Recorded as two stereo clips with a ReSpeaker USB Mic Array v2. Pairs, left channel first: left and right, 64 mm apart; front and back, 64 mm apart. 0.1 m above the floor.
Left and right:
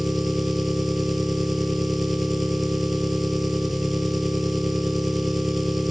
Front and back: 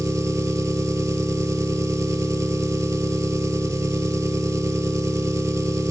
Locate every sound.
0.0 s an engine running: straight behind, 0.7 m